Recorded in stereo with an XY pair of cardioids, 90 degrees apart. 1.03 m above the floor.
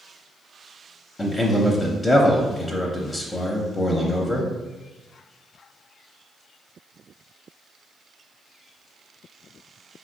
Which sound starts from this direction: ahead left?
A man speaking, at 1.2 s.